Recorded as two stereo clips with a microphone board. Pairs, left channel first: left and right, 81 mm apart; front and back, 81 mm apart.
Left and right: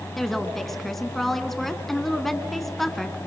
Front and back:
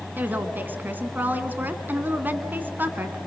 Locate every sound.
0.2 s a woman speaking: 170° left, 1.1 m